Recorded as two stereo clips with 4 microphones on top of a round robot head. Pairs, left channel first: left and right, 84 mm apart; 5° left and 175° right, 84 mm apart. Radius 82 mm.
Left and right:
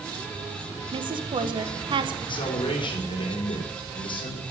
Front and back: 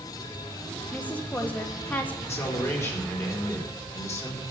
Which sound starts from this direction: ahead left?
A man speaking, at 2.2 s.